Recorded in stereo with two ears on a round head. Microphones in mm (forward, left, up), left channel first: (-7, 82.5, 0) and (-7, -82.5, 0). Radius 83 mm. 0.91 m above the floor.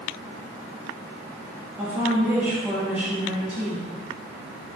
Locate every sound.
1.8 s a woman speaking: 10° right (ahead or behind), 1.3 m